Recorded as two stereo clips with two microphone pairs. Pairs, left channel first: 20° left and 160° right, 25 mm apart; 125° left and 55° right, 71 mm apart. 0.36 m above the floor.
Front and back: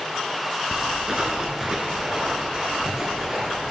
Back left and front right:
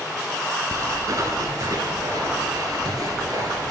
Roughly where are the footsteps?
Right.